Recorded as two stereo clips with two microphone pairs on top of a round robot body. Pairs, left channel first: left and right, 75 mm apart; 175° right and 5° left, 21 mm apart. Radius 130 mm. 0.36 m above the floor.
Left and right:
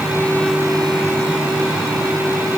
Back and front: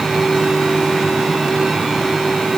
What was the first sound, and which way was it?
Only background noise.